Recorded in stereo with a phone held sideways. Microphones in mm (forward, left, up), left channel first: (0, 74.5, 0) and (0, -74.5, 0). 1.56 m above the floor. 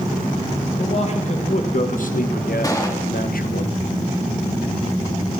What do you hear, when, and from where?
0.8 s a man speaking: 45° left (ahead or behind), 2.5 m; by 3.6 s 65° left (ahead or behind), 1.3 m
2.6 s a gunshot: 25° left (ahead or behind), 3 m